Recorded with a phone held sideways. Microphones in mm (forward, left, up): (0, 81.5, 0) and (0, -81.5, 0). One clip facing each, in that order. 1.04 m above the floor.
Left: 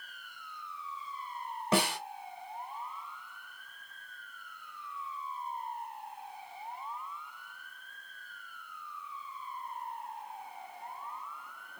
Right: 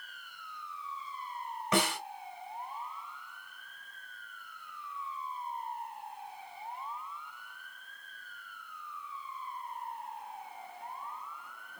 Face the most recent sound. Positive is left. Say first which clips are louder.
# left 1 dB
turn(degrees=35)  # may be behind; listen again after turning